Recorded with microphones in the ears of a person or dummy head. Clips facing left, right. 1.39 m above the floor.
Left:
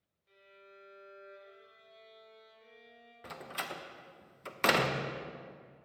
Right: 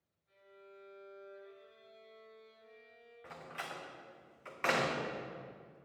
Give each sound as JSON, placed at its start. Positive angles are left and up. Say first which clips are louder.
{"t": 0.3, "sound": "a violin", "louder": "right 1 dB", "side_deg": 80, "distance_m": 2.5}
{"t": 3.2, "sound": "a door slam", "louder": "left 4 dB", "side_deg": 55, "distance_m": 0.7}